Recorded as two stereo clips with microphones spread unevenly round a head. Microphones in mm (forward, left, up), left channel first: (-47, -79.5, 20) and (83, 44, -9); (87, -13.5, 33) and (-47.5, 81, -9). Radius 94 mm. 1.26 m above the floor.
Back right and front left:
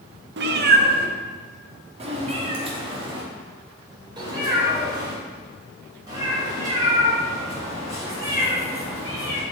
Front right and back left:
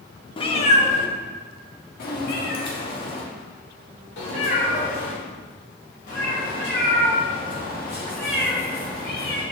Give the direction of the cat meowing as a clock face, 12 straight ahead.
12 o'clock.